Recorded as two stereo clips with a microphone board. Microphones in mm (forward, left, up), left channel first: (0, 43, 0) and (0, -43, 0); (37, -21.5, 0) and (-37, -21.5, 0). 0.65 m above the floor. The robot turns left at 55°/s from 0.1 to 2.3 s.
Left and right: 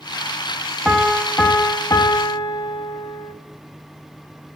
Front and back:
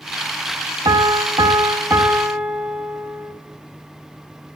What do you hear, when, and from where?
0.8 s a piano: 170° right, 1.4 m; by 3.3 s 110° left, 1.4 m